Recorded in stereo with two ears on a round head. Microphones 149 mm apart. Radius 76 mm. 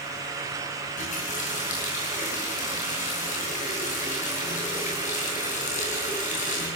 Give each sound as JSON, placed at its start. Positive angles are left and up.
{"t": 1.0, "sound": "a running tap", "side_deg": 50, "distance_m": 10.0}